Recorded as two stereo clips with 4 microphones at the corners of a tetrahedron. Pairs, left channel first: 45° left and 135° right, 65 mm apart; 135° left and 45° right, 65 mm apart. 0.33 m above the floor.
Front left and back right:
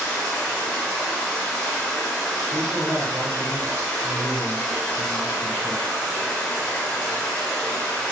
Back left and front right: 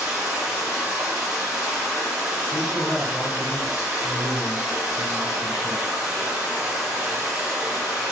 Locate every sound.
0.0 s running water: 10° left, 1.1 m
2.5 s a man speaking: 125° right, 1.3 m